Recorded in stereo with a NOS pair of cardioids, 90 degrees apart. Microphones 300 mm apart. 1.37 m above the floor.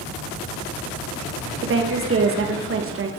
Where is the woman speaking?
40° right, 1.5 m.